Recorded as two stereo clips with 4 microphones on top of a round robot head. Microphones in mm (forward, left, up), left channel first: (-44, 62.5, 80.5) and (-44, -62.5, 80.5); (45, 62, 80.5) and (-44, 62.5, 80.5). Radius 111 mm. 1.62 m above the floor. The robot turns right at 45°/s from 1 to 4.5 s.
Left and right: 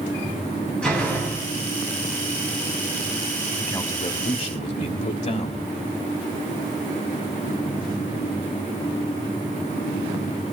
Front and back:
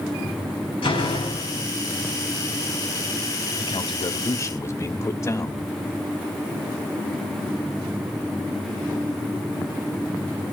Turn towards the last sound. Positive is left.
turn(degrees=55)